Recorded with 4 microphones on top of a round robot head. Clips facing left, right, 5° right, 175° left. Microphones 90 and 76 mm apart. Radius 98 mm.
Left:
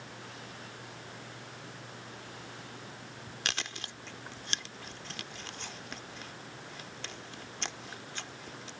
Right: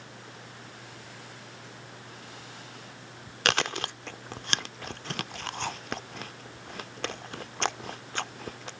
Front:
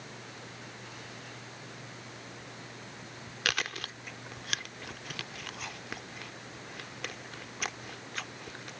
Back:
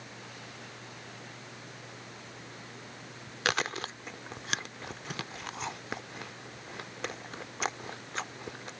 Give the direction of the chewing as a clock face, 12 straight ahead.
4 o'clock.